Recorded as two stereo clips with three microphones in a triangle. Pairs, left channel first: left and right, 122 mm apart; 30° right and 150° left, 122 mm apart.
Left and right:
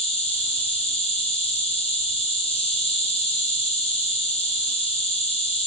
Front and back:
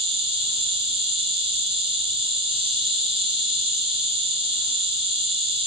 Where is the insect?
115° left, 1.0 m.